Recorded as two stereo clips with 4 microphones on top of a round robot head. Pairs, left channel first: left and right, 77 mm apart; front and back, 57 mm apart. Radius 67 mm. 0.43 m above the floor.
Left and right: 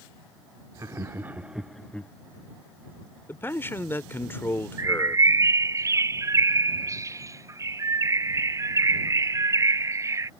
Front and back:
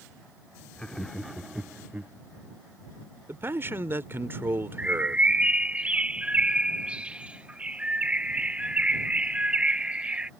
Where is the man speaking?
145° left.